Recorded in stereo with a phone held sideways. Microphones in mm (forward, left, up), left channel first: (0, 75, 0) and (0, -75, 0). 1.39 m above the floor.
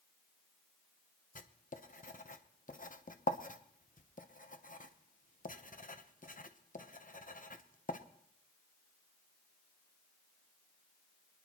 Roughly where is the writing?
Left.